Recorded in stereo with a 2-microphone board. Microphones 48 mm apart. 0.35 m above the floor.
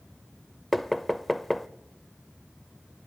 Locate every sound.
0.7 s knocking: 5° left (ahead or behind), 0.6 m